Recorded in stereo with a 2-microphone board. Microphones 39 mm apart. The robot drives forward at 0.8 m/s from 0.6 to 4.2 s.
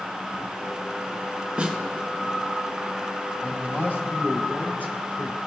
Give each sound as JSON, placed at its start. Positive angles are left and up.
{"t": 1.6, "sound": "a snare drum", "side_deg": -25, "distance_m": 1.1}
{"t": 3.4, "sound": "a man speaking", "side_deg": 55, "distance_m": 2.5}